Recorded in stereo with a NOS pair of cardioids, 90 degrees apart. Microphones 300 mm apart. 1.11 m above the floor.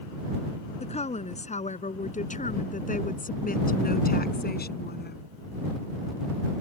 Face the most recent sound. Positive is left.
turn(degrees=35)